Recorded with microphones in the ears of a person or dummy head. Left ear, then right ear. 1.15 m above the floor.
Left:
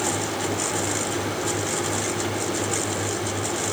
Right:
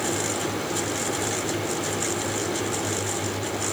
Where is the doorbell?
I don't hear a doorbell.